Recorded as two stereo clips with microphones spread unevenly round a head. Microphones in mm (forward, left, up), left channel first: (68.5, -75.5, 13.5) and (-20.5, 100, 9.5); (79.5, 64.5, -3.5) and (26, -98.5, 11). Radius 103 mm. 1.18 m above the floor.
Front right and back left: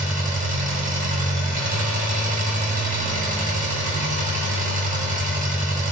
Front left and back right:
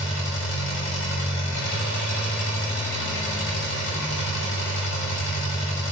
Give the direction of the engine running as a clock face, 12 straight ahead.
10 o'clock.